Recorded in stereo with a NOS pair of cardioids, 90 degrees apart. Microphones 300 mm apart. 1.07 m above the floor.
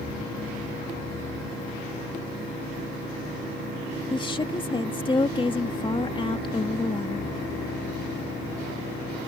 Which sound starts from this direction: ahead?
A woman speaking, at 4.1 s.